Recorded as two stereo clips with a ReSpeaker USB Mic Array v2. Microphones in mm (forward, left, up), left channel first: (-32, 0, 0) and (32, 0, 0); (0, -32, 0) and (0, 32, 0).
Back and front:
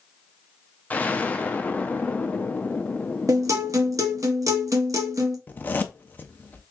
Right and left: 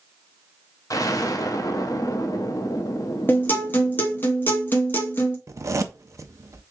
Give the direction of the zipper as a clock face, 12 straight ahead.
8 o'clock.